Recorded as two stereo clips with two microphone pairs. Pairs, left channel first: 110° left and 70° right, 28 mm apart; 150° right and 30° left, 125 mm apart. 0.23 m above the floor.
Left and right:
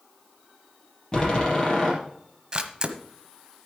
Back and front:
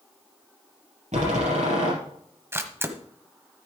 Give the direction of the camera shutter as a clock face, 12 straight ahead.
1 o'clock.